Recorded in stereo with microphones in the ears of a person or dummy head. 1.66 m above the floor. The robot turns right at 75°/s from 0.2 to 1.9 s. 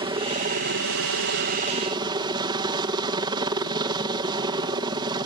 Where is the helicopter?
150° right; by 5.2 s 20° right.